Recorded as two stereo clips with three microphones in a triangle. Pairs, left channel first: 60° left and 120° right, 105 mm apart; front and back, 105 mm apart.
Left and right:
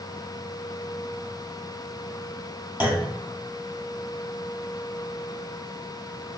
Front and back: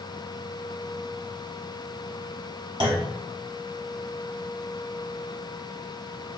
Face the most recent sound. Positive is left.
turn(degrees=170)